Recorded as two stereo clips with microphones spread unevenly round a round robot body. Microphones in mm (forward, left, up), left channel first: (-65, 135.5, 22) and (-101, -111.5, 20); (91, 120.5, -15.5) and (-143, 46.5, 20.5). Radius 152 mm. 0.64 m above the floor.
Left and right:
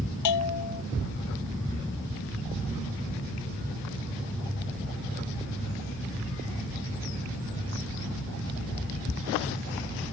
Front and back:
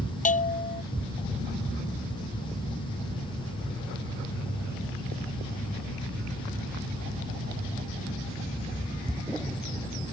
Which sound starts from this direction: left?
A bell, at 0.2 s.